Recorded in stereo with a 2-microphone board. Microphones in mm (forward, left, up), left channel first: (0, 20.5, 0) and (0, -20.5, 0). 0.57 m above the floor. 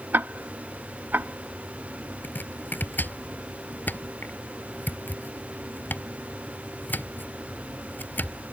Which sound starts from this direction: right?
Ticking, at 0.1 s.